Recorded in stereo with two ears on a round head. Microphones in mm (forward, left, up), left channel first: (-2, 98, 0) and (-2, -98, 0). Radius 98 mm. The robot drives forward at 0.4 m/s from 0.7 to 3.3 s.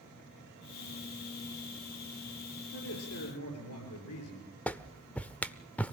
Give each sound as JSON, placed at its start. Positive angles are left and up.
{"t": 2.7, "sound": "a man speaking", "side_deg": 75, "distance_m": 7.0}
{"t": 4.7, "sound": "a clap", "side_deg": 5, "distance_m": 0.6}